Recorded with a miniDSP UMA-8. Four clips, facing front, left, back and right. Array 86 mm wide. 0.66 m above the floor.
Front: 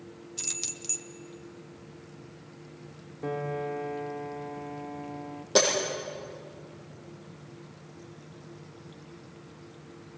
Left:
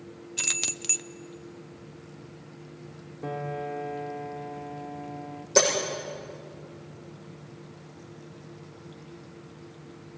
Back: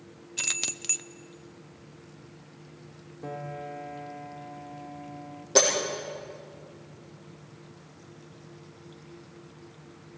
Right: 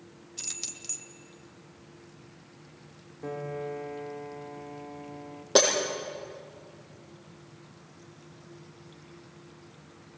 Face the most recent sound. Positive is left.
turn(degrees=-80)